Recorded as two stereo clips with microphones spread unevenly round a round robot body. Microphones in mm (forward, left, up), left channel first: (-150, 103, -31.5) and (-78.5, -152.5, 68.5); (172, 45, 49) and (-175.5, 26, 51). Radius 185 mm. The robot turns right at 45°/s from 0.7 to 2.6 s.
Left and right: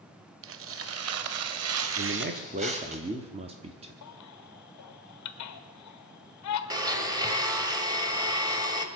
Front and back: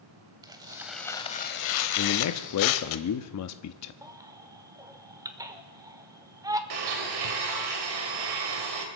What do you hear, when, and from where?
0.4 s tearing paper: 95° right, 0.8 m; by 3.0 s 10° right, 0.8 m
2.0 s a man speaking: 15° right, 0.8 m; by 3.9 s 10° left, 0.8 m
4.0 s a baby crying: 105° left, 1.1 m
6.7 s a blender: 155° right, 2 m